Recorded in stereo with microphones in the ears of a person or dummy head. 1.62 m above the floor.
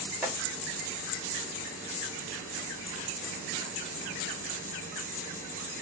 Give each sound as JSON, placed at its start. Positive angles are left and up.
{"t": 0.2, "sound": "chopping", "side_deg": 0, "distance_m": 0.8}